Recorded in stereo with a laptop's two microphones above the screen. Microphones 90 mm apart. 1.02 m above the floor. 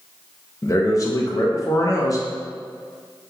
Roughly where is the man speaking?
Left.